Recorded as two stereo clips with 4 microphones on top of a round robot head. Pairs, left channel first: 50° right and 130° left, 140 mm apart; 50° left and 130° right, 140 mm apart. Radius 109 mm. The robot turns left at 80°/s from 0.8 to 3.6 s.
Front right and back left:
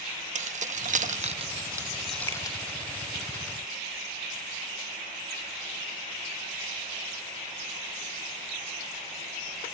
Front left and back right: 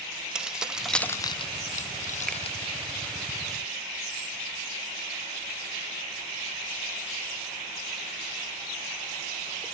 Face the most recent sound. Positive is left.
turn(degrees=25)